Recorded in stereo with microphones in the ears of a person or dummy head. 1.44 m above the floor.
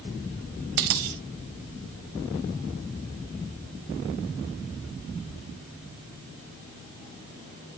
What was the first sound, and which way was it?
A dropped coin, 40° right (ahead or behind).